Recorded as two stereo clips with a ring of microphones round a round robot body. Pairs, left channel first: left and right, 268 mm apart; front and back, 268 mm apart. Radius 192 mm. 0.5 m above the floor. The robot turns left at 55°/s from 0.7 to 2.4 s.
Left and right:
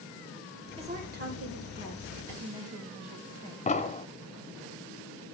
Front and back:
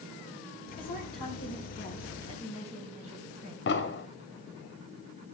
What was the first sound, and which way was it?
A woman speaking, 20° right.